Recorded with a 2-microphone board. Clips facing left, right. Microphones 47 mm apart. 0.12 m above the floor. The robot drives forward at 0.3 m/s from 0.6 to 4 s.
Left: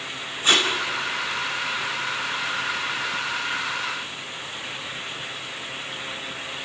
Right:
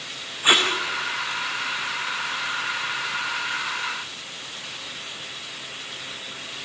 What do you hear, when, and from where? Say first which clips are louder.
0.4 s tape being pulled: right 1 dB; 15° right (ahead or behind), 5.5 m